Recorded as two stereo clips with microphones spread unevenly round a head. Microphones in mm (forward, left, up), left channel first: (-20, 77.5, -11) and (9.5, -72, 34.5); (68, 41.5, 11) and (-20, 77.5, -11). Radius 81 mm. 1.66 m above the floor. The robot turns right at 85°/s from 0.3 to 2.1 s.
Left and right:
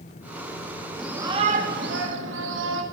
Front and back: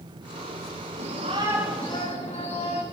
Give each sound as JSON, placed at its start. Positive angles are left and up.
{"t": 1.0, "sound": "a shout", "azimuth_deg": -170, "distance_m": 4.0}